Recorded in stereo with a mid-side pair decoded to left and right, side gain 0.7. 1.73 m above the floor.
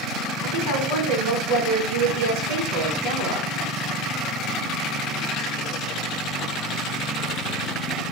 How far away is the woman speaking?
About 1.2 m.